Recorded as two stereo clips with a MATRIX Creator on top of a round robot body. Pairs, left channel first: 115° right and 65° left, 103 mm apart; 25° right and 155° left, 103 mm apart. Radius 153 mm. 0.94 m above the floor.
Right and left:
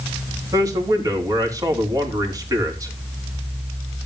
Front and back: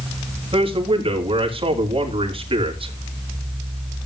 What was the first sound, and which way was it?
A man speaking, 125° left.